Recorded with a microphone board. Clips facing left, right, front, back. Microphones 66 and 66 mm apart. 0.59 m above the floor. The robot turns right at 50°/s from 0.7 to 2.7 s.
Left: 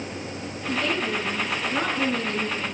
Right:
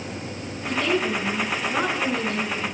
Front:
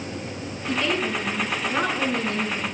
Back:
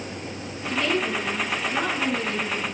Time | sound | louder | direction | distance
0.7 | a woman speaking | right 3 dB, even | 115° right | 8.5 m